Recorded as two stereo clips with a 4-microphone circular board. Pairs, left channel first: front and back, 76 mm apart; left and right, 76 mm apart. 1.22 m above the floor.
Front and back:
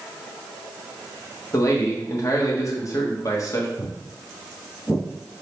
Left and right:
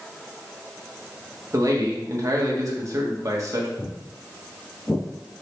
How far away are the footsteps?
About 1.3 m.